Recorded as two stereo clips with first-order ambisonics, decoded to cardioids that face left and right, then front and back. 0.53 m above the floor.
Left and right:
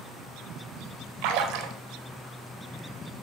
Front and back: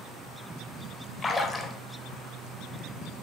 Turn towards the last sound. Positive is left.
turn(degrees=-75)